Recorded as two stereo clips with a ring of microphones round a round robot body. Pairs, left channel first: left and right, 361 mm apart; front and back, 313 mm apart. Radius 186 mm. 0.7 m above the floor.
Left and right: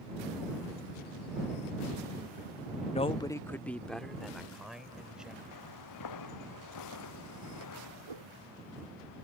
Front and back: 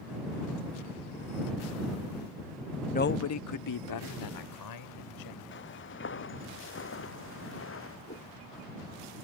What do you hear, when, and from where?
2.9 s a man speaking: 40° left; by 5.4 s straight ahead
5.5 s footsteps: 50° left; by 8.0 s 45° left
8.1 s a whoosh: 70° right